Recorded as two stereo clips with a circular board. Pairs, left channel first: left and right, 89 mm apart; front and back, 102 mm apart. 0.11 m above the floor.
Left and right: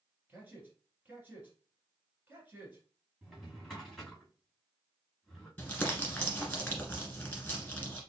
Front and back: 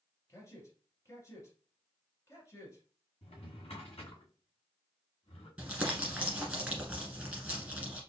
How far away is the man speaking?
About 2.0 m.